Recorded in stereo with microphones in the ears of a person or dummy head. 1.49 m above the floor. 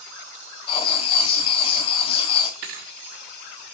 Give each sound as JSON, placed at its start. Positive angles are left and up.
{"t": 0.7, "sound": "writing", "side_deg": 30, "distance_m": 1.9}
{"t": 2.6, "sound": "a thud", "side_deg": -50, "distance_m": 1.4}